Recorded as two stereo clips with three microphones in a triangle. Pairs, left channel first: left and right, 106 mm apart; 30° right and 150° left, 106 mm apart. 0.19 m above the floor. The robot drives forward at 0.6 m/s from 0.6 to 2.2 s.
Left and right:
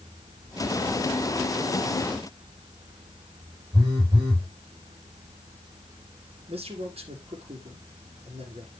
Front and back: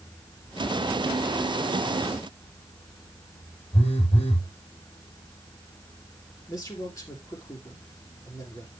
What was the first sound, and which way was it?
A phone buzzing, 40° right.